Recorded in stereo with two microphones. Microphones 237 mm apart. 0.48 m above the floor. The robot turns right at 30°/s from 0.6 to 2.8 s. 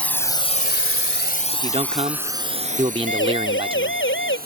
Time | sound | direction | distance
0.0 | a drone | 5° left (ahead or behind) | ?
1.5 | a man speaking | 25° right (ahead or behind) | ?
3.1 | a siren | 55° left (ahead or behind) | ?